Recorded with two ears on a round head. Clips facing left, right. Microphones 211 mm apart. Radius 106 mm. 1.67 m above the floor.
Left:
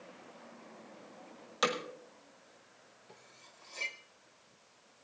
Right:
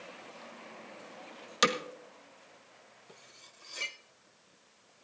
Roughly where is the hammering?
Right.